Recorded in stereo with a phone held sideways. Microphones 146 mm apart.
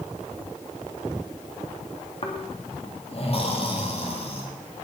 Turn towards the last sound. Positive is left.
turn(degrees=45)  # may be behind; listen again after turning